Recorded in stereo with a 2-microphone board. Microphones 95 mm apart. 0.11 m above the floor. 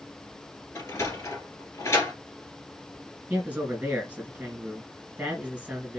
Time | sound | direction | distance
0.8 | a sliding door | 30° left (ahead or behind) | 1.8 m
3.3 | a man speaking | 15° right (ahead or behind) | 1.8 m